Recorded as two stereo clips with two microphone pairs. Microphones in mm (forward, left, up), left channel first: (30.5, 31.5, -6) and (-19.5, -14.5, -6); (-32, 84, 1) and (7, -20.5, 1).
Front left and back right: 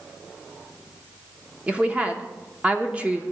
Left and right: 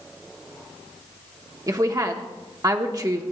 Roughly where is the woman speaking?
Right.